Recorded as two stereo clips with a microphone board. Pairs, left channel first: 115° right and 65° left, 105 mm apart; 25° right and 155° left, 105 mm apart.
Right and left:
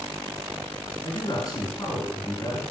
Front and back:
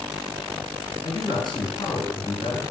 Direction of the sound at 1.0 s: 65° right.